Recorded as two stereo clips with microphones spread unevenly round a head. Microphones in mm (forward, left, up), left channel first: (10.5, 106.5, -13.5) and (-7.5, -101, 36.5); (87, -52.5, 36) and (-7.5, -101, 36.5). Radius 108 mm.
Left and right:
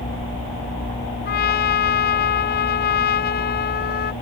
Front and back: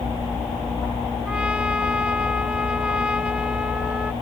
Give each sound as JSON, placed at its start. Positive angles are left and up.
{"t": 1.2, "sound": "a trumpet", "azimuth_deg": 125}